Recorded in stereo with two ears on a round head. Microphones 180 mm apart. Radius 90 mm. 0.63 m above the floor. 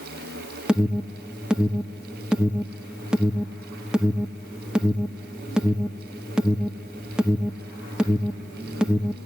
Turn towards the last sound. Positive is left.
turn(degrees=-5)  # may be behind; listen again after turning